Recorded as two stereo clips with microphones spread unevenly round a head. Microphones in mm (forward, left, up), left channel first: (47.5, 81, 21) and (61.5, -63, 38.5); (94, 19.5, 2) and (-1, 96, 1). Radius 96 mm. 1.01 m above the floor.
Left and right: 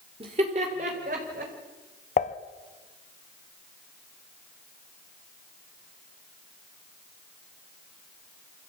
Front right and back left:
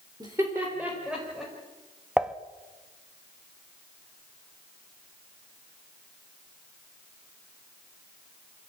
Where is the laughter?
145° right, 3 m; by 1.5 s 130° right, 4.5 m.